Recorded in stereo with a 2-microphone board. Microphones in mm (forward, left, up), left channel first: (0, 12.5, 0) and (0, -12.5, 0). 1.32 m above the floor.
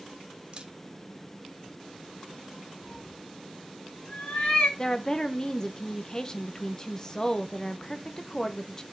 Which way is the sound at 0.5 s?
40° right (ahead or behind).